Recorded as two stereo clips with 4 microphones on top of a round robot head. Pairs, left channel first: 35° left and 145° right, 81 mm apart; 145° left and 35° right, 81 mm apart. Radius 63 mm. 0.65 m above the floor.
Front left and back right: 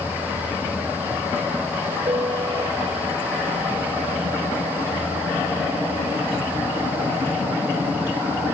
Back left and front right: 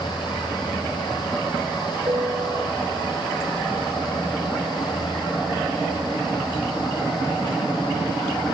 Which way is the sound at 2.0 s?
95° right.